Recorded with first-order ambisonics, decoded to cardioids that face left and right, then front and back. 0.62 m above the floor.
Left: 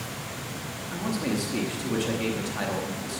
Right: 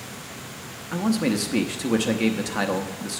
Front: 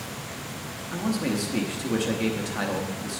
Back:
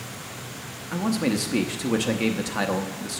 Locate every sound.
0.9 s a man speaking: 120° right, 0.7 m